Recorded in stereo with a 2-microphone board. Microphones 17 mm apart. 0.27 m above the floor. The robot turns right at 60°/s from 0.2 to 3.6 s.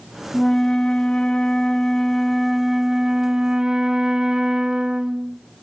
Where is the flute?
40° left, 0.6 m; by 5.4 s 120° right, 0.6 m.